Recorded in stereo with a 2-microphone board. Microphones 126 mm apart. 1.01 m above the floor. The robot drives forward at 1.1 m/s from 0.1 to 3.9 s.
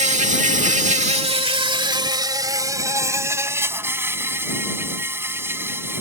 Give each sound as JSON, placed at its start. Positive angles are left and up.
{"t": 0.0, "sound": "an insect", "side_deg": -65}